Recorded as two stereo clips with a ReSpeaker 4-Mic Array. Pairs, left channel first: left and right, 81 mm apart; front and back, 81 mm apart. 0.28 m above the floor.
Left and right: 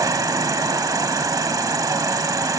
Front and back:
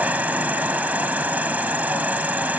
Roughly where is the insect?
Behind right.